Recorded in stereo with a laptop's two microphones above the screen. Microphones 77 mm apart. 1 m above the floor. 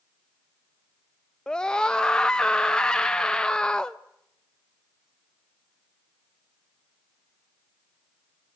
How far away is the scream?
About 0.5 m.